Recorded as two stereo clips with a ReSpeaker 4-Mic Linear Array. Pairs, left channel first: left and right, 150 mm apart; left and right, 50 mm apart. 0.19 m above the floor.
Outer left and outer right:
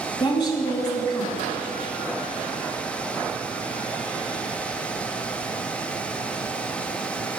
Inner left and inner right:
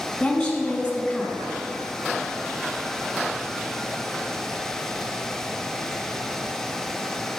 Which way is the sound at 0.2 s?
30° left (ahead or behind).